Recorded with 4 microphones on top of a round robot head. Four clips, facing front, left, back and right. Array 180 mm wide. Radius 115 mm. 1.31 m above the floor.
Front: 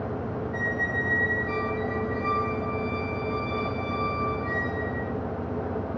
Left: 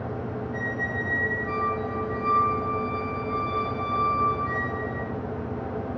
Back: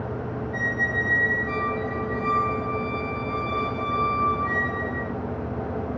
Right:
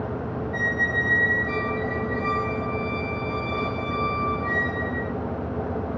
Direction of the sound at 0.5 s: 90° right.